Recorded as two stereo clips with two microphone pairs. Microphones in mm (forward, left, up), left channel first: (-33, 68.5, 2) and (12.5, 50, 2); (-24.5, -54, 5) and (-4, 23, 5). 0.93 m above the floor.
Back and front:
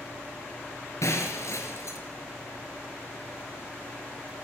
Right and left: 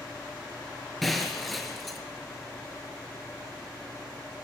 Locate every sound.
0.0 s an engine running: 160° left, 7.5 m
1.0 s breaking glass: 165° left, 3.5 m